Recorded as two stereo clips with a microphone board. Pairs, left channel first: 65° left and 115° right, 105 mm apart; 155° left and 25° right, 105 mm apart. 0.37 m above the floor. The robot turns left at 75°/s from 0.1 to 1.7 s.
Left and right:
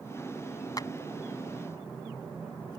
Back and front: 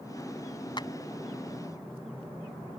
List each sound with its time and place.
0.8 s a clap: 120° left; by 0.9 s 110° left